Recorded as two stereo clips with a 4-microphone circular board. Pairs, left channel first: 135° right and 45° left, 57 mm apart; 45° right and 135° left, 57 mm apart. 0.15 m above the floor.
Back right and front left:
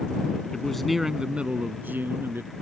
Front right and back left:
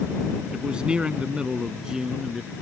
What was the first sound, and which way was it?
A man speaking, 175° left.